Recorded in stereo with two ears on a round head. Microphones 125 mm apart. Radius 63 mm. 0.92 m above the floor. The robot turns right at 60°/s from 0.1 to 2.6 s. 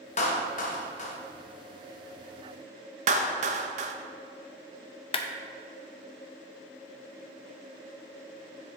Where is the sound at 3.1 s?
55° right (ahead or behind), 0.6 m.